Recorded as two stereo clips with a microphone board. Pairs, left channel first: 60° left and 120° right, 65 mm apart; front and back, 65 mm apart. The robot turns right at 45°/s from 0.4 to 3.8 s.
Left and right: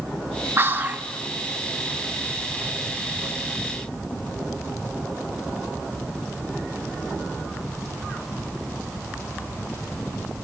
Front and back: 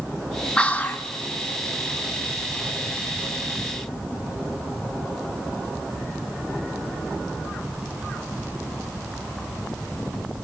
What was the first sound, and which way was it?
Whispering, 75° right.